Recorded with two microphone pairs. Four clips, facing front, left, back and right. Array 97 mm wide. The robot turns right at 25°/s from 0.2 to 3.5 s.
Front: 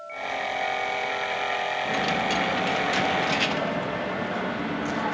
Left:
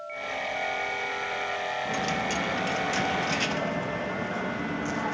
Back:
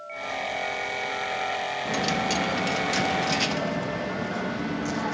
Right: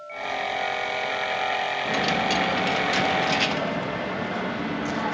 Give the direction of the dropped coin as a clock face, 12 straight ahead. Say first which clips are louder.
Right 6 dB, back 1 dB; 2 o'clock.